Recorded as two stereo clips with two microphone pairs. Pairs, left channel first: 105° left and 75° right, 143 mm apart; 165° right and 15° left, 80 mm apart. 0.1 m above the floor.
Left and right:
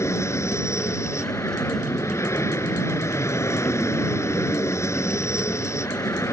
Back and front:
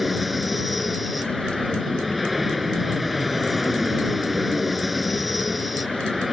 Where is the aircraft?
100° left.